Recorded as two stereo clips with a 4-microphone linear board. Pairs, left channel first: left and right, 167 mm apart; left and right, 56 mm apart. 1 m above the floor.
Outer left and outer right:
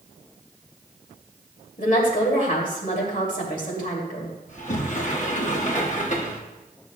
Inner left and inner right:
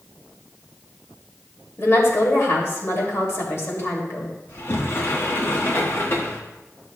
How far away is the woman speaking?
About 2.5 m.